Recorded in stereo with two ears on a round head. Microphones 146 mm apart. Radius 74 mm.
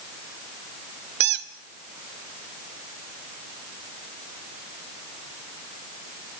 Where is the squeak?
75° right (ahead or behind), 2.0 m.